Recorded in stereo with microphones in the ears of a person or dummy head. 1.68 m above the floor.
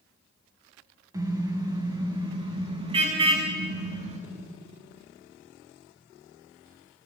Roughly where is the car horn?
Centre.